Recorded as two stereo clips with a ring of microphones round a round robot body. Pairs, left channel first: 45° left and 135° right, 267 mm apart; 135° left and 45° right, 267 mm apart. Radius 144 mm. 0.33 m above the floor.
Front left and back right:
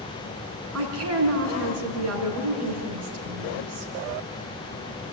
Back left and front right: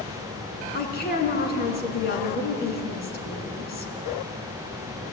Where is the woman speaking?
170° right, 4 m.